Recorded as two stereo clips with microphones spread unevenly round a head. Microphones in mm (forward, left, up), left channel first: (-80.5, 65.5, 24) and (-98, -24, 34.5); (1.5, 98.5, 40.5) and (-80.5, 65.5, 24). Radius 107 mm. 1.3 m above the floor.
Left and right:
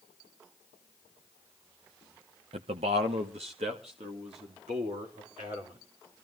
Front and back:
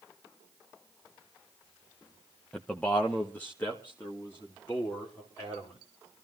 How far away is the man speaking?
About 0.8 m.